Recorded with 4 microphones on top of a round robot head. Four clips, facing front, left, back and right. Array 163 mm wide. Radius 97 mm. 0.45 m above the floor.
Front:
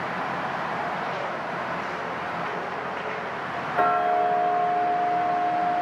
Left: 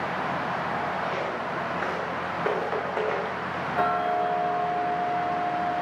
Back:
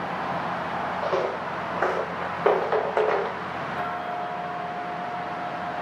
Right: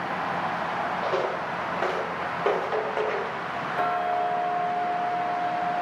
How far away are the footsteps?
About 3 m.